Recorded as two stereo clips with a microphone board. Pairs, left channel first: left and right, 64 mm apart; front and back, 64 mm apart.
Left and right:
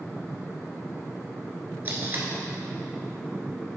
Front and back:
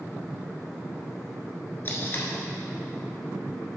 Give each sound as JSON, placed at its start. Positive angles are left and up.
{"t": 1.9, "sound": "tape being pulled", "azimuth_deg": -45, "distance_m": 1.3}